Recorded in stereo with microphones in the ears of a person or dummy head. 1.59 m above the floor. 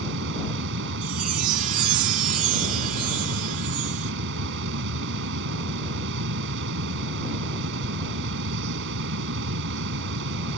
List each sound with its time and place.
0.0 s a fan: 70° right (ahead or behind)
1.0 s a chime: 45° right (ahead or behind)